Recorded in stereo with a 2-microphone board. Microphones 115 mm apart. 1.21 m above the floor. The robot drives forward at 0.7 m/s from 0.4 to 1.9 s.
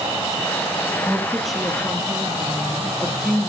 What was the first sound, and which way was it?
A woman speaking, centre (ahead or behind).